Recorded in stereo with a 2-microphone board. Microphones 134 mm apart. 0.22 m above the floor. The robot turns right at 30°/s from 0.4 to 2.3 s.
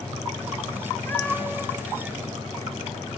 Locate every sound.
1.1 s a cat meowing: 15° left (ahead or behind), 1.1 m; by 1.7 s centre (ahead or behind), 1.1 m